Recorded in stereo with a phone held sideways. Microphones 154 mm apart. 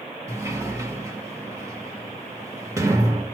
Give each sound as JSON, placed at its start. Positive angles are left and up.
{"t": 0.3, "sound": "a sliding door", "side_deg": -20, "distance_m": 1.0}